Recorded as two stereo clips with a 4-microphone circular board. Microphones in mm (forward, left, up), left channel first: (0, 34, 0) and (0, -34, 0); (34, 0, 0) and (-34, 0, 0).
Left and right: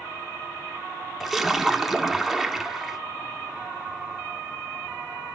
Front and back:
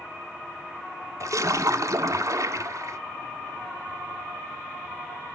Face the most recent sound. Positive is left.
turn(degrees=180)